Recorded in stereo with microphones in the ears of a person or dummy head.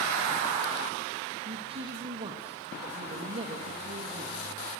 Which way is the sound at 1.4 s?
25° right (ahead or behind).